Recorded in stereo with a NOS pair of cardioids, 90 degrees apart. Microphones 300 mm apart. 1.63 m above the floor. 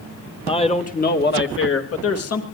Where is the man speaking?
15° left, 2 m; by 2.4 s 55° left, 3 m.